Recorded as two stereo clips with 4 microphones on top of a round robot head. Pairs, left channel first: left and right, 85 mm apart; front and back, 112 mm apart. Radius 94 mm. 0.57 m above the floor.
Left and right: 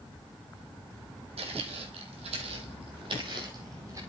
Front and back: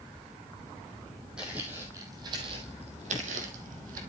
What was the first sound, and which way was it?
Footsteps, 95° right.